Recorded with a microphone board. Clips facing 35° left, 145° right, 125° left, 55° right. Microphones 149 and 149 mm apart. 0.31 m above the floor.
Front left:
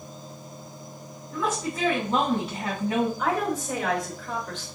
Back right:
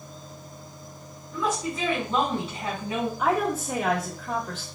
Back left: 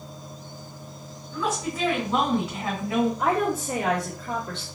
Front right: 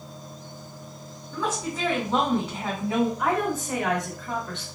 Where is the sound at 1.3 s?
5° left, 2.5 m.